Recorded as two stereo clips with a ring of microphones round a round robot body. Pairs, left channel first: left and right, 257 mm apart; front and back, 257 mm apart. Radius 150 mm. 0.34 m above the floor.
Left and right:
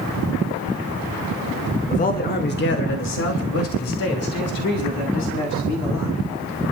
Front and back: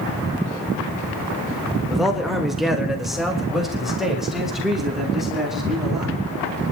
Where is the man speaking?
90° left, 1.5 m.